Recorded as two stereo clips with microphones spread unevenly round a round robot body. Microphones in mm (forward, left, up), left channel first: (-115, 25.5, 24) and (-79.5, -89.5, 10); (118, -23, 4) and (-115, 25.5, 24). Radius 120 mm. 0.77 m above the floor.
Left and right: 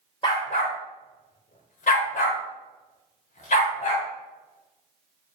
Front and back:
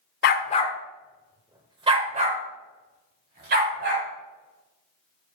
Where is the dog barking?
40° left, 0.7 m; by 4.0 s 120° left, 2 m.